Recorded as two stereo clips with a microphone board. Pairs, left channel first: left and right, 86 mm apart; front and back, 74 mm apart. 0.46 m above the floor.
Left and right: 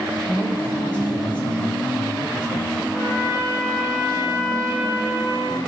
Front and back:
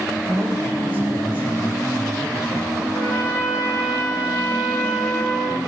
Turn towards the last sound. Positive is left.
turn(degrees=60)